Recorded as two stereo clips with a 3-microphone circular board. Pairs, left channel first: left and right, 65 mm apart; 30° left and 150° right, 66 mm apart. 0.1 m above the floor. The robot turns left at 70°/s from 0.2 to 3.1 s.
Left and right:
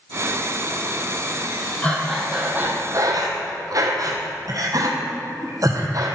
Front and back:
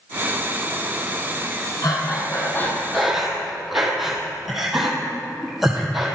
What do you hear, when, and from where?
1.8 s breathing: 25° left, 1.9 m; by 6.1 s 65° right, 1.9 m